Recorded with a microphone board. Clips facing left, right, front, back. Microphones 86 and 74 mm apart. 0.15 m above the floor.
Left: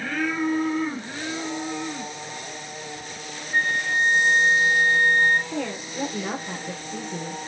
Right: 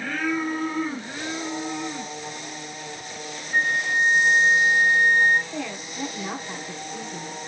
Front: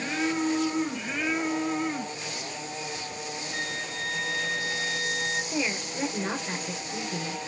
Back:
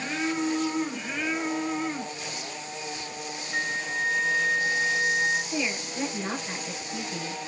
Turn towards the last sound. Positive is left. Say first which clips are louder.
# left 3 dB, even
turn(degrees=75)